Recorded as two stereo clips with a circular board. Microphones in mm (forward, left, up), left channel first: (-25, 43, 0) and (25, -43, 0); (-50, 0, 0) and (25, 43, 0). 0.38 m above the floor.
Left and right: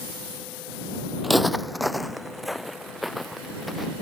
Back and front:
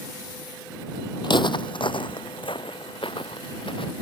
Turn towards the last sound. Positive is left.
turn(degrees=-150)